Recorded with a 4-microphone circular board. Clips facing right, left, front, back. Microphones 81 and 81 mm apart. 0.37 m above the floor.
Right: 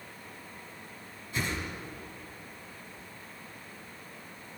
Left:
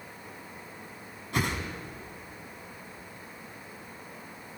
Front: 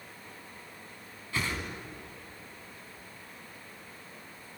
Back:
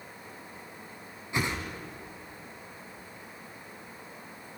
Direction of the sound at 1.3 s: 110° left.